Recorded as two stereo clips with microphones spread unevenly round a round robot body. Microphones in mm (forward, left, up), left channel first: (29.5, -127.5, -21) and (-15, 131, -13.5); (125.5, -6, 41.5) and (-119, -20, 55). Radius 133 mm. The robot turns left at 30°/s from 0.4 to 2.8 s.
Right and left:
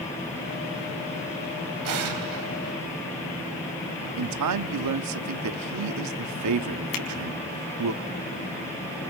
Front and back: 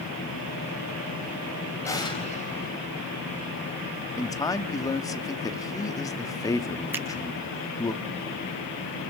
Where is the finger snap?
95° right, 5 m.